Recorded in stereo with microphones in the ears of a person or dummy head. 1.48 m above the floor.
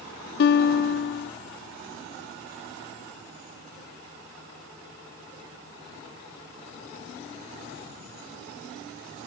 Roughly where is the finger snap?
I don't hear a finger snap.